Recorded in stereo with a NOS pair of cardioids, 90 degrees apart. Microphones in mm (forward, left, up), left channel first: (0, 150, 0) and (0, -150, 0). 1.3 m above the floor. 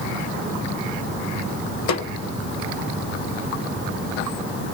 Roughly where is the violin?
I don't hear a violin.